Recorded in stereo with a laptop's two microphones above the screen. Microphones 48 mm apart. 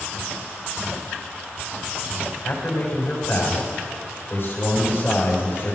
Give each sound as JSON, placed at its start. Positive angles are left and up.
{"t": 2.4, "sound": "a man speaking", "side_deg": 50, "distance_m": 4.5}